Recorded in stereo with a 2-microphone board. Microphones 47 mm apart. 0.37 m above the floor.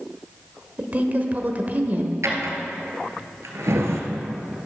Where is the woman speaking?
35° right (ahead or behind), 1.1 m.